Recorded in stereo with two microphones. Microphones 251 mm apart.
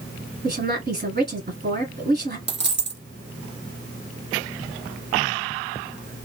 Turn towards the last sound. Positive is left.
turn(degrees=-45)  # may be behind; listen again after turning